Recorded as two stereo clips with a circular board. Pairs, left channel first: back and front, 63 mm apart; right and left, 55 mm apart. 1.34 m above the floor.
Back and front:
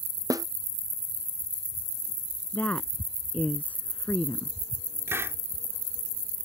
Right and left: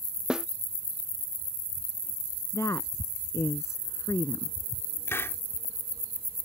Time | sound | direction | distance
0.3 | a snare drum | 15° left | ?
2.5 | a woman speaking | 115° right | ?
5.1 | a hiss | 50° right | ?